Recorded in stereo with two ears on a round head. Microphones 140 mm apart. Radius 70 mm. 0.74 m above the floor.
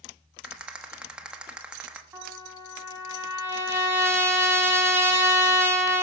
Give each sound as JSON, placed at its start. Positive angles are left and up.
{"t": 0.4, "sound": "a rattle", "side_deg": -5, "distance_m": 1.0}
{"t": 2.1, "sound": "a trumpet", "side_deg": -15, "distance_m": 2.0}